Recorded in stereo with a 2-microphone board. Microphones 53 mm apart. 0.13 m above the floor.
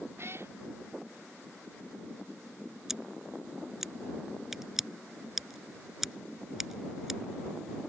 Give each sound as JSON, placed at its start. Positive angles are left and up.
{"t": 0.2, "sound": "a cat meowing", "side_deg": -50}
{"t": 2.9, "sound": "scissors", "side_deg": -5}